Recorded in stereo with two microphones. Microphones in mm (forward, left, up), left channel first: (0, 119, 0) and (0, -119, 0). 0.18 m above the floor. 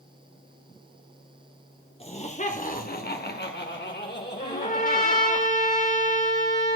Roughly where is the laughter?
Left.